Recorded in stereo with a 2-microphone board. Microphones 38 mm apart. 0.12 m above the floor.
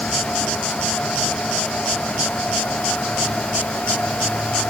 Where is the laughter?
No laughter in this recording.